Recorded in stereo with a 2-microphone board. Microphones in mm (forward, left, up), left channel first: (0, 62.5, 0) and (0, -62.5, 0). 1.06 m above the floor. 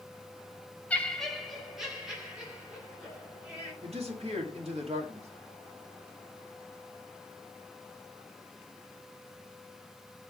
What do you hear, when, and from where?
0.9 s laughter: 10° left (ahead or behind), 1.0 m; by 3.7 s 10° right (ahead or behind), 5.5 m
3.8 s a man speaking: 55° right (ahead or behind), 2 m